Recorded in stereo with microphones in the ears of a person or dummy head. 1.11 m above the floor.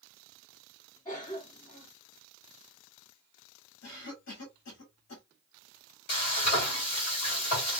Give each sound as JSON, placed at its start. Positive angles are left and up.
{"t": 1.1, "sound": "a cough", "side_deg": 20, "distance_m": 1.3}
{"t": 3.8, "sound": "a cough", "side_deg": 55, "distance_m": 1.9}
{"t": 6.1, "sound": "frying", "side_deg": 50, "distance_m": 1.9}